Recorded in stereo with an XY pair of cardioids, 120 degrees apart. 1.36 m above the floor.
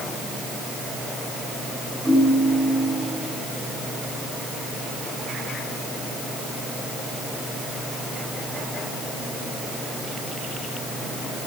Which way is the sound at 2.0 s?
5° right.